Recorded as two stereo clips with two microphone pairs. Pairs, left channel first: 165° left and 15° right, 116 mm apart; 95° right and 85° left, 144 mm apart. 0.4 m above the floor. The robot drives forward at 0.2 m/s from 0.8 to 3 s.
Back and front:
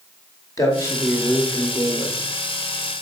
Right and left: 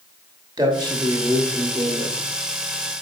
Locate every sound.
0.6 s a man speaking: 130° left, 1.7 m; by 2.2 s 140° left, 1.8 m